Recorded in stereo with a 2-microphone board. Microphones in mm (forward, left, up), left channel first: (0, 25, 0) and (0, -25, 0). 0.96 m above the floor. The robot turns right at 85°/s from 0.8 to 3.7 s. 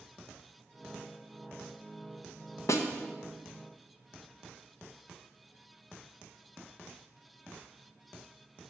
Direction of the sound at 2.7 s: 70° left (ahead or behind).